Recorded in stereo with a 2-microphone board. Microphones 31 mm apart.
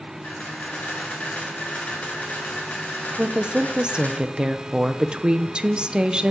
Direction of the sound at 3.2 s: 30° right (ahead or behind).